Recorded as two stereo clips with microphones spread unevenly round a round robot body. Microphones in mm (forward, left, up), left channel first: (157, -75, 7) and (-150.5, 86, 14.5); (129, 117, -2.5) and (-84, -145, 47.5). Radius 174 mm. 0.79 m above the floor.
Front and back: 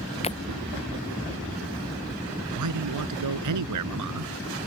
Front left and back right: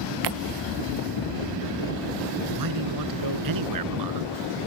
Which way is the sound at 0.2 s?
100° right.